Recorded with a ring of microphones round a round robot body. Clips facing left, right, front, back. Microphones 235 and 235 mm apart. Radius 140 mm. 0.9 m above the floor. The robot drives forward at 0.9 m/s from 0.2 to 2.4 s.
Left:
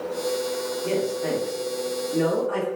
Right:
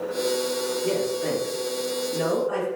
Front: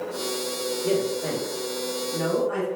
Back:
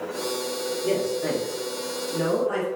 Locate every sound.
0.8 s a man speaking: 70° right, 0.9 m; by 2.7 s 170° right, 1.6 m